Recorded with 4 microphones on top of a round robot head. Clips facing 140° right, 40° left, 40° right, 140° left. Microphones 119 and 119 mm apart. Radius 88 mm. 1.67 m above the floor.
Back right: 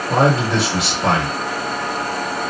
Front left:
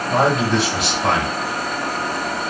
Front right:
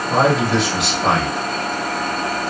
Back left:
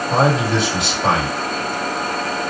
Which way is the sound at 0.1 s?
130° right.